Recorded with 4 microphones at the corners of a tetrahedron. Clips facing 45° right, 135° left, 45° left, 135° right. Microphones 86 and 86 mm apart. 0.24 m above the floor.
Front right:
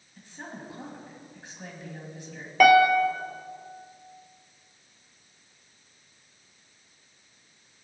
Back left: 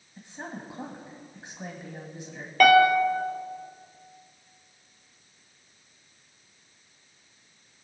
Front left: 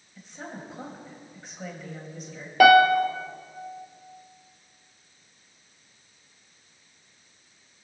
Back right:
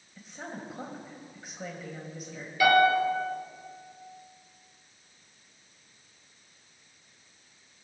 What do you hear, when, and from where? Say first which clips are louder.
0.2 s a woman speaking: back left 2 dB, front left 1 dB; 145° left, 1.4 m
2.6 s a piano: even, front left 6 dB; 40° left, 0.9 m